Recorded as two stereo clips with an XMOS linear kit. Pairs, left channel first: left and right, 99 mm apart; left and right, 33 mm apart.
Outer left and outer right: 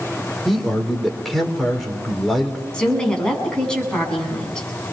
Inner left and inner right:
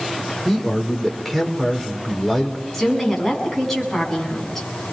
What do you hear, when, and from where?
0.5 s a man speaking: centre (ahead or behind), 4 m
2.7 s a woman speaking: 10° left (ahead or behind), 8 m